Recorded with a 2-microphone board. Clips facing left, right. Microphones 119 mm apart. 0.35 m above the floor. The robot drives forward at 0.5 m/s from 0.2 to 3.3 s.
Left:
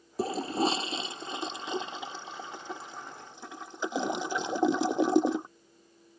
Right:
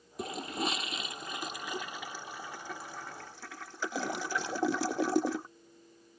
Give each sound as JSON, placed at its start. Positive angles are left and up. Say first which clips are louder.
{"t": 0.2, "sound": "a toilet flushing", "louder": "left 7 dB", "side_deg": 30}